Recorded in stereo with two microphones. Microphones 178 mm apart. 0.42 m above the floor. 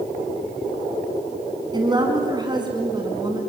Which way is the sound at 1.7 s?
25° right (ahead or behind).